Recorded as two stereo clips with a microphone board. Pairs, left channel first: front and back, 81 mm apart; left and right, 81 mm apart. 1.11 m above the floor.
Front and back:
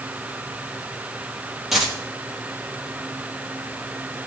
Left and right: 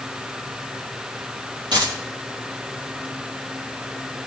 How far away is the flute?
I don't hear a flute.